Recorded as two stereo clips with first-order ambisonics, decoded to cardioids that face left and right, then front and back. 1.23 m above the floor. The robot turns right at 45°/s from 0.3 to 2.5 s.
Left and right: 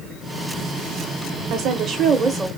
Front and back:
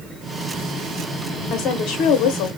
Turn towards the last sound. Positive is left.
turn(degrees=-10)